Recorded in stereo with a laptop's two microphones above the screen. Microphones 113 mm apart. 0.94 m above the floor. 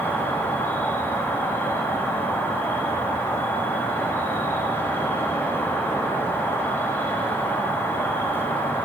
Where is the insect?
20° left (ahead or behind), 0.9 m.